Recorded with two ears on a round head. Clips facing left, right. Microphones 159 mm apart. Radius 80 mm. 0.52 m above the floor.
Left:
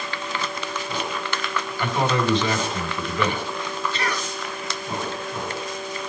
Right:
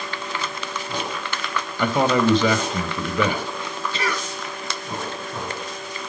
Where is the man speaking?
70° right (ahead or behind), 3 m.